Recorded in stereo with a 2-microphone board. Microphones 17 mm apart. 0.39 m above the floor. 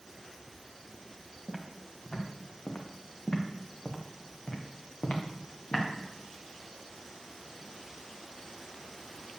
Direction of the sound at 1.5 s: 35° left (ahead or behind).